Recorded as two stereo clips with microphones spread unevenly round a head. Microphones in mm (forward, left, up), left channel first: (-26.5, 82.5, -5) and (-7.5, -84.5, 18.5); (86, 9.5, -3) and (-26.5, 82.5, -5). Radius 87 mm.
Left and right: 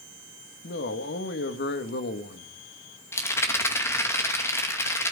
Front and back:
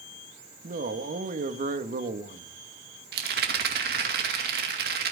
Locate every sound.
0.6 s a man speaking: 125° left, 1.5 m
3.1 s a rattle: 170° left, 2.5 m